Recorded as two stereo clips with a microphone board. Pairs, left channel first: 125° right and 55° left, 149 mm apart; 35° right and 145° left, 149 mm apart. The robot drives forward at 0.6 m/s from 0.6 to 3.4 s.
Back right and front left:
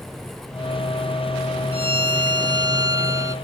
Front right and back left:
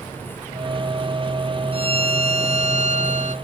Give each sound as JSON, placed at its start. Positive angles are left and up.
{"t": 1.7, "sound": "a violin", "azimuth_deg": 100}